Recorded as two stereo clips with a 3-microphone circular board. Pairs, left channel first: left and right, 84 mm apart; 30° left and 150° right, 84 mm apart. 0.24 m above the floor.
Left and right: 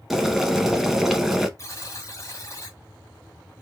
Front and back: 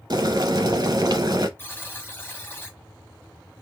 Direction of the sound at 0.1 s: 175° right.